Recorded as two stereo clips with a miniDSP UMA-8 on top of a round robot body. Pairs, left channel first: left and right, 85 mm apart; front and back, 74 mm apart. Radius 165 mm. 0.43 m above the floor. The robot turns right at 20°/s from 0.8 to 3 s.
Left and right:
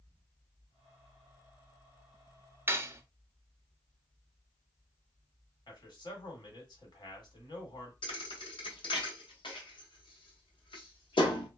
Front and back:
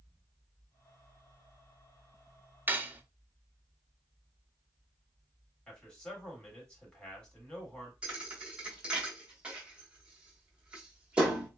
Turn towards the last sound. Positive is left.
turn(degrees=105)